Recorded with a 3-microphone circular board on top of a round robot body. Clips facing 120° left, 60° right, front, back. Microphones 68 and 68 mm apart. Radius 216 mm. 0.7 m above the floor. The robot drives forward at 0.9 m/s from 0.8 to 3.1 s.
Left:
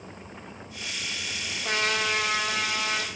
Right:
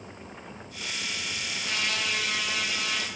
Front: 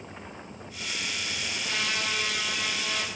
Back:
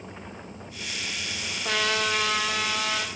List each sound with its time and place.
1.6 s a trumpet: 175° left, 1.0 m; by 3.1 s straight behind, 2.5 m